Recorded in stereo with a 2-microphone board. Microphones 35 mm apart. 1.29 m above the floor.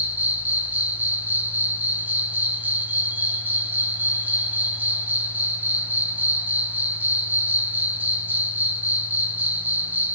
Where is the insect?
60° right (ahead or behind), 0.9 m.